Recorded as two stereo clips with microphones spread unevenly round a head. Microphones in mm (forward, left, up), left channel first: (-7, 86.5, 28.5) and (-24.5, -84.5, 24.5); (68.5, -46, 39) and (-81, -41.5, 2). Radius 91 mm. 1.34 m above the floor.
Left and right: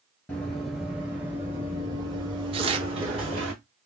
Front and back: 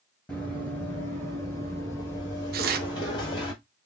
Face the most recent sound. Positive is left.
turn(degrees=-155)